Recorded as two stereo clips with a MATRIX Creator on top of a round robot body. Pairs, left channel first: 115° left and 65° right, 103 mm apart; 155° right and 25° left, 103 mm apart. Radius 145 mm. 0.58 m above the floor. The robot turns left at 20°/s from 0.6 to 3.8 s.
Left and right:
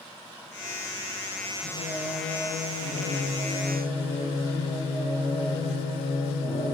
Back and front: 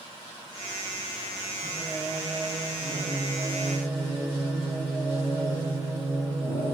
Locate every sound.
1.6 s singing: 135° left, 6 m; by 6.8 s 90° left, 6 m